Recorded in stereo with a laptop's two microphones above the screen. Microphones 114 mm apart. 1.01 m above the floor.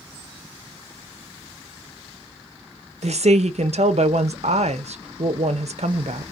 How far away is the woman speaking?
About 0.5 m.